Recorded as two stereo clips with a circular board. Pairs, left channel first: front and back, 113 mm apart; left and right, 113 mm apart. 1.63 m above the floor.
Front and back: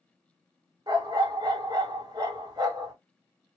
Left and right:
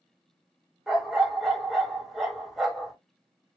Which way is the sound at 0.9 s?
175° right.